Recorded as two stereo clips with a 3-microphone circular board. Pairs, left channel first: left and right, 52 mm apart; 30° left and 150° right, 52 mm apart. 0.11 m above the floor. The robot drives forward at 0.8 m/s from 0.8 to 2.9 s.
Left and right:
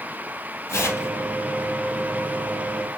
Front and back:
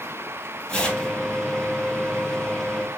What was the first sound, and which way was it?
Tearing paper, 100° left.